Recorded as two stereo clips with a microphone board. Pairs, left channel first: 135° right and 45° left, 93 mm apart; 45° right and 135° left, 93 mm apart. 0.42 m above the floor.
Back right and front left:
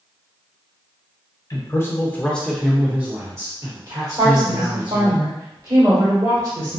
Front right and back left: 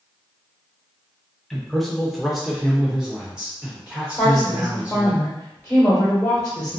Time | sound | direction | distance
1.5 | a man speaking | 130° right | 1.0 m
4.2 | a woman speaking | 25° left | 1.2 m